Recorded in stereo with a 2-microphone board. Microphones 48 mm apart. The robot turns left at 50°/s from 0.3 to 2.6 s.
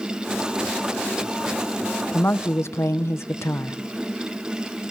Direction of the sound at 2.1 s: 45° left (ahead or behind).